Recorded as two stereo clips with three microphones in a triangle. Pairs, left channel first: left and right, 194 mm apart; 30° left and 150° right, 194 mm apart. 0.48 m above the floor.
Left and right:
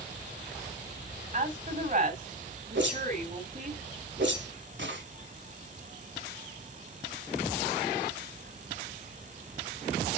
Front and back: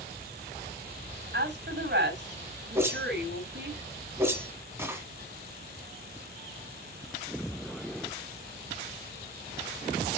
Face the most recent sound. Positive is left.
turn(degrees=-70)